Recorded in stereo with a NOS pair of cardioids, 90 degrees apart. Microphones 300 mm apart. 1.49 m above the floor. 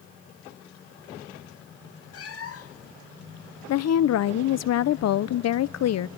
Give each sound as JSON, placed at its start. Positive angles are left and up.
{"t": 2.1, "sound": "a cat meowing", "azimuth_deg": 50, "distance_m": 2.0}
{"t": 3.7, "sound": "a woman speaking", "azimuth_deg": 60, "distance_m": 0.8}